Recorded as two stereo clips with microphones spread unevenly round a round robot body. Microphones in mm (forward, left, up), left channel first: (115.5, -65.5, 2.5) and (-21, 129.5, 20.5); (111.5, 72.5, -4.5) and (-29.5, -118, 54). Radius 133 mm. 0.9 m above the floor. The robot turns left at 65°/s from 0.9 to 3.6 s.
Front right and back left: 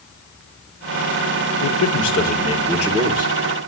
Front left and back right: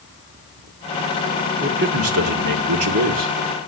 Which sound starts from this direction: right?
A man speaking, at 1.6 s.